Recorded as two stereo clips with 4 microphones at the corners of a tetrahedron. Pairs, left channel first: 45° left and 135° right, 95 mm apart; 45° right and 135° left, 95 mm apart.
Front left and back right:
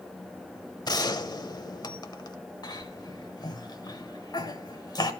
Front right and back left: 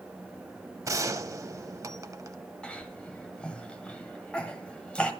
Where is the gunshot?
85° left, 0.6 m.